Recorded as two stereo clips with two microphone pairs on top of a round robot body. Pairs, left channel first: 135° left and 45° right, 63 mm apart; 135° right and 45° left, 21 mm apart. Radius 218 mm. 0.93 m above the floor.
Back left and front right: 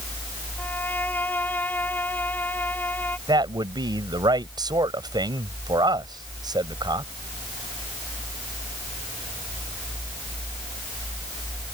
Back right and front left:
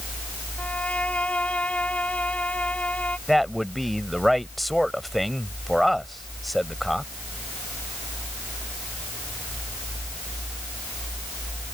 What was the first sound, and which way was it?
A violin, 160° right.